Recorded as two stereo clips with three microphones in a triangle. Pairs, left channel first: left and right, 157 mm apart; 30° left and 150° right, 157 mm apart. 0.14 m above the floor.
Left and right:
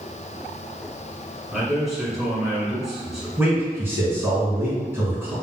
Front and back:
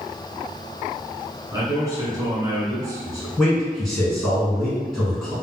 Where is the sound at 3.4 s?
50° right, 1.7 m.